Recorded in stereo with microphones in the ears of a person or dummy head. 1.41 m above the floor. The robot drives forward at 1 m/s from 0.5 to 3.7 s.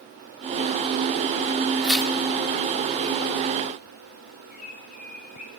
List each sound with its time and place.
1.8 s tearing paper: 5° right (ahead or behind), 3 m
4.5 s a bird: 40° left (ahead or behind), 3 m